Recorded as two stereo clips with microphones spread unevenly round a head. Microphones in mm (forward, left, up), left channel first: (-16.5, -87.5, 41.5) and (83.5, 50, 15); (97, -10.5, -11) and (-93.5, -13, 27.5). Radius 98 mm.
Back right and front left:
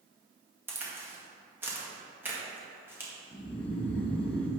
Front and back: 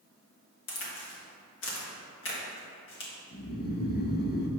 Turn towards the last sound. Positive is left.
turn(degrees=-45)